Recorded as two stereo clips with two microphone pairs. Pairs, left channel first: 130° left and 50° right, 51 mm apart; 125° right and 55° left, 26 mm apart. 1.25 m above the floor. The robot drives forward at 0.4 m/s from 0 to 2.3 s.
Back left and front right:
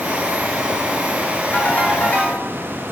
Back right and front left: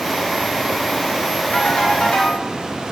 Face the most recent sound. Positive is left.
turn(degrees=-175)